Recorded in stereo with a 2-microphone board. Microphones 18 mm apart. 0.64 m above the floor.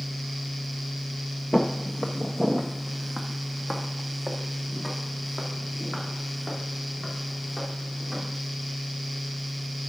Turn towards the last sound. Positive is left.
turn(degrees=10)  # may be behind; listen again after turning